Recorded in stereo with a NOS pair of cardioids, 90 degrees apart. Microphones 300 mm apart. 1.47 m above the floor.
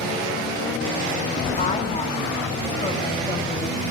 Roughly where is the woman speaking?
Ahead.